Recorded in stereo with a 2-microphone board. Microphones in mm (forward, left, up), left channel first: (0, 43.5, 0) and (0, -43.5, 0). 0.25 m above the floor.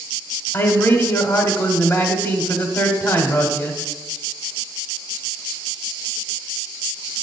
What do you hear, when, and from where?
0.5 s a man speaking: 30° left (ahead or behind), 1.2 m